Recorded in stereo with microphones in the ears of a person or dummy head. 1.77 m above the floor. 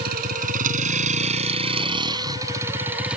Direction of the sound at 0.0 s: 55° right (ahead or behind).